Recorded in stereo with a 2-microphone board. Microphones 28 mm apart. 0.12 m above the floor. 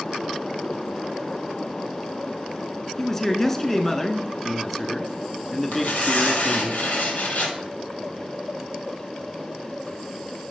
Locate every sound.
3.0 s a man speaking: 15° left (ahead or behind), 1.1 m
5.7 s tearing paper: 70° left (ahead or behind), 3 m